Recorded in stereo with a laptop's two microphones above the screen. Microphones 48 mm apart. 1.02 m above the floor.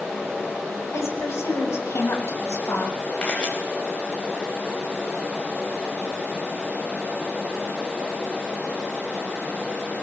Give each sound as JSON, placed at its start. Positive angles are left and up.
{"t": 0.9, "sound": "a woman speaking", "side_deg": 80, "distance_m": 7.5}
{"t": 3.2, "sound": "a camera shutter", "side_deg": 20, "distance_m": 5.0}